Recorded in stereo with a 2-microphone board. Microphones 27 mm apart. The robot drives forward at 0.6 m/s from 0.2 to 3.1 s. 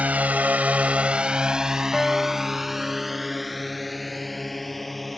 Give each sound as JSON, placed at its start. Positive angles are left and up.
{"t": 0.0, "sound": "a drone", "side_deg": -60}
{"t": 1.9, "sound": "a guitar", "side_deg": 10}